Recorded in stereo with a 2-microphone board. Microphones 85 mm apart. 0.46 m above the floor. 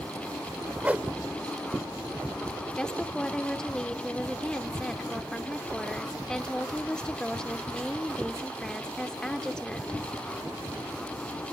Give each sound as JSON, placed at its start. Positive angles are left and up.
{"t": 0.8, "sound": "a whoosh", "side_deg": -20, "distance_m": 0.8}
{"t": 2.8, "sound": "a woman speaking", "side_deg": 10, "distance_m": 0.9}